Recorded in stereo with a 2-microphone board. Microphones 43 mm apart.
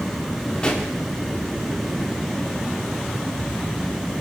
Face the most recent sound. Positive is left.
turn(degrees=25)  # may be behind; listen again after turning